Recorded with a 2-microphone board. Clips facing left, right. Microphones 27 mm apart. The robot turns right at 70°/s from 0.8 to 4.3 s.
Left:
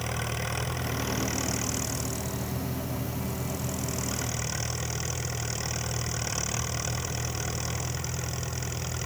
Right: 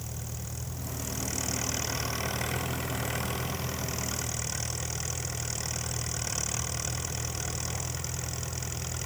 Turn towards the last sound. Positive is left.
turn(degrees=10)